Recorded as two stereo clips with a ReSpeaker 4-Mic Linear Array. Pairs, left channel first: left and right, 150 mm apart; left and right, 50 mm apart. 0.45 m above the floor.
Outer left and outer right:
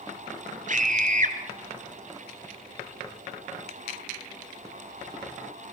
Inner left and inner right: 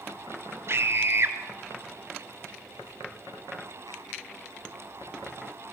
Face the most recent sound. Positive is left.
turn(degrees=-55)  # may be behind; listen again after turning